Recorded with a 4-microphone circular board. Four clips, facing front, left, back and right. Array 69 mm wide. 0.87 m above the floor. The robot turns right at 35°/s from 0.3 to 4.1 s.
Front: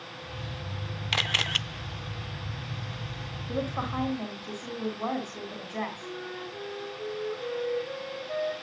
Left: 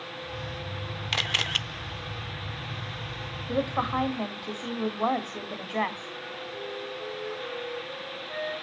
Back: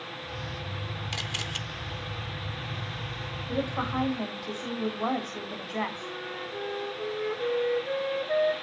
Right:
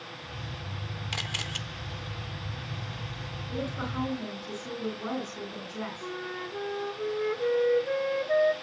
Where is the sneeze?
No sneeze in this recording.